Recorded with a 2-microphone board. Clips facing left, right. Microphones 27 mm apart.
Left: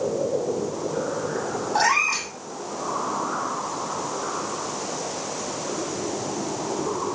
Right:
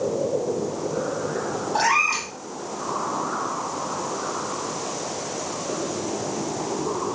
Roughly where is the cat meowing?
Centre.